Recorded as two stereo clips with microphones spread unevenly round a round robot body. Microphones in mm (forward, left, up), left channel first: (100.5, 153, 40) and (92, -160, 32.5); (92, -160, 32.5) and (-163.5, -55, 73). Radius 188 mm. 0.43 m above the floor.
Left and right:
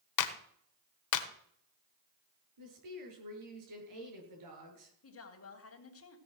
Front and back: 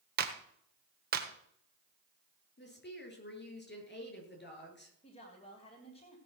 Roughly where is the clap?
Left.